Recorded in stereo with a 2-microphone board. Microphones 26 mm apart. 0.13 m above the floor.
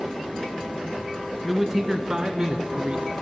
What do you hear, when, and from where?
1.4 s a man speaking: 10° right (ahead or behind), 1.4 m; by 3.1 s 45° right (ahead or behind), 1.8 m